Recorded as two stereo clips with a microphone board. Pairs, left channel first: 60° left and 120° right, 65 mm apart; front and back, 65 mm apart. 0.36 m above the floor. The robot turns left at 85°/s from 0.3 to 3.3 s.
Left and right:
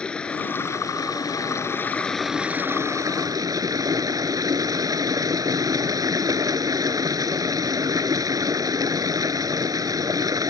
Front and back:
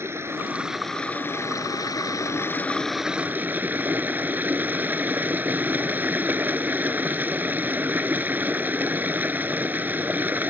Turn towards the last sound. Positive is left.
turn(degrees=-120)